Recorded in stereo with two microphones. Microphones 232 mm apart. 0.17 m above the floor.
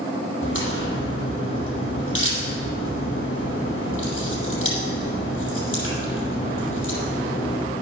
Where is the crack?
55° left (ahead or behind), 4.5 m.